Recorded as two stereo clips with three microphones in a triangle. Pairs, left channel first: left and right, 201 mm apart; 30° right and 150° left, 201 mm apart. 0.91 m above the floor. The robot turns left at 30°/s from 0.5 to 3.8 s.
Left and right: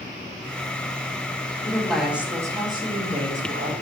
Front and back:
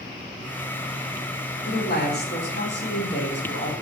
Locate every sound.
1.6 s a woman speaking: 10° left, 1.7 m; by 3.7 s 55° right, 1.7 m